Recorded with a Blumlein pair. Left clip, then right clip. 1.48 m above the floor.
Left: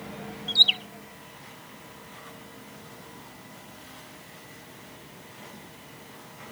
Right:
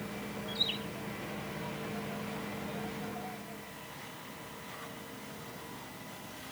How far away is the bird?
About 0.6 m.